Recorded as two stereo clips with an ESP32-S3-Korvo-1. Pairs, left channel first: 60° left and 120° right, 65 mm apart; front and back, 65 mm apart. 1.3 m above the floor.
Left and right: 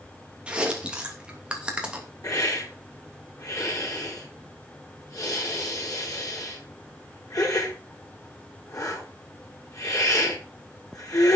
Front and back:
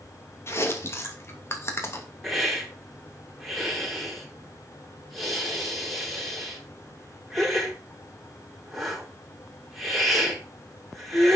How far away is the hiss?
About 5 m.